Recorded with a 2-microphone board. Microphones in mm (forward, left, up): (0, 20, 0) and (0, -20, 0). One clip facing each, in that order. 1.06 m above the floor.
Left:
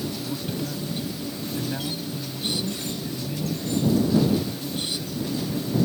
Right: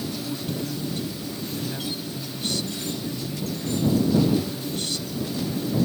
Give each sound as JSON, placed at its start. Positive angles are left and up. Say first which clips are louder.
{"t": 0.2, "sound": "a man speaking", "louder": "even", "side_deg": 20}